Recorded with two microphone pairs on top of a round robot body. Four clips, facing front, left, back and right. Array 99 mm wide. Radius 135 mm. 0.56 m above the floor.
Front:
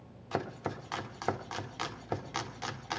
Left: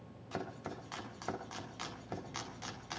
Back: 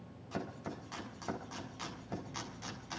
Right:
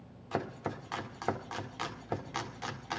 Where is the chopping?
40° right, 2.0 m.